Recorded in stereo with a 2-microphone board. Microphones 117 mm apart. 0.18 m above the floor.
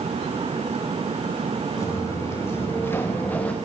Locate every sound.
1.8 s footsteps: 25° left (ahead or behind), 3 m; by 3.6 s 10° left (ahead or behind), 1.5 m